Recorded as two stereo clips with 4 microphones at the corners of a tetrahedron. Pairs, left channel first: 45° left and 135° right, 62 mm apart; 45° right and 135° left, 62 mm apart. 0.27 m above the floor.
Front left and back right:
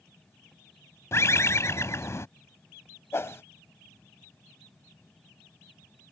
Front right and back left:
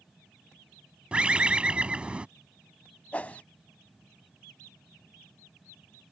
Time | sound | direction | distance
1.1 | a bird | 65° left | ?
3.1 | a whoosh | 15° left | ?